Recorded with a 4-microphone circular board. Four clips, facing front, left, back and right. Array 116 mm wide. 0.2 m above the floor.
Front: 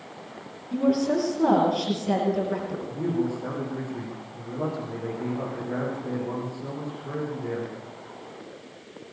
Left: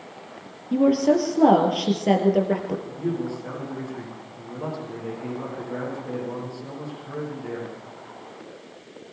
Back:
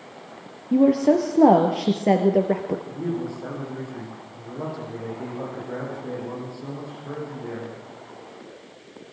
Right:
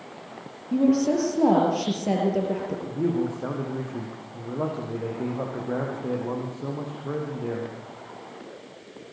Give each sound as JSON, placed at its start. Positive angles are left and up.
{"t": 0.7, "sound": "a woman speaking", "azimuth_deg": 165, "distance_m": 4.5}
{"t": 2.9, "sound": "a man speaking", "azimuth_deg": -95, "distance_m": 8.0}